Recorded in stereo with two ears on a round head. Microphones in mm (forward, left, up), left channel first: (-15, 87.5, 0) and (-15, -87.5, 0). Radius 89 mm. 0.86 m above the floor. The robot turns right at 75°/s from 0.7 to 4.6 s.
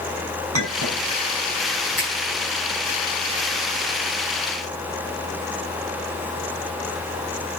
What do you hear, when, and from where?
0.5 s a clink: 80° right, 5.5 m; by 1.0 s 55° right (ahead or behind), 5.5 m
2.0 s a finger snap: 5° left (ahead or behind), 7.5 m; by 2.1 s 20° left (ahead or behind), 7.5 m